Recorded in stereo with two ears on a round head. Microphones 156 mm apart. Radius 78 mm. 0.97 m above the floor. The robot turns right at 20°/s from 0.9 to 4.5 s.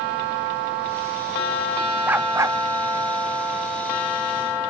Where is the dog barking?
10° right (ahead or behind); by 2.6 s 20° right (ahead or behind).